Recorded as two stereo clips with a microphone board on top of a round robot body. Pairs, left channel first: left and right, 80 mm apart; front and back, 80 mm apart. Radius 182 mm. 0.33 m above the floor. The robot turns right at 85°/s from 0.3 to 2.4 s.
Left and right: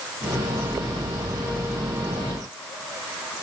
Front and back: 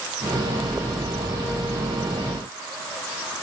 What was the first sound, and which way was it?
Only background noise.